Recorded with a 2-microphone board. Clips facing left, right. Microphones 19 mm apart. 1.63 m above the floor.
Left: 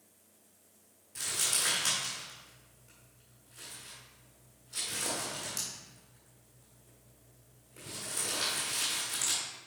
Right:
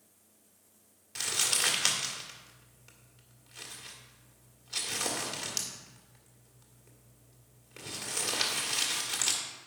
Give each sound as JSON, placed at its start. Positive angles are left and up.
{"t": 1.1, "sound": "crumpling", "side_deg": -45, "distance_m": 1.8}